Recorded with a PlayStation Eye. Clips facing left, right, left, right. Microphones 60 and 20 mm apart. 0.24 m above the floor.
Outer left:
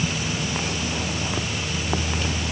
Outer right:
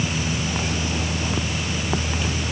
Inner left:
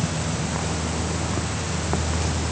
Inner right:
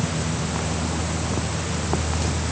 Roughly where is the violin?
I don't hear a violin.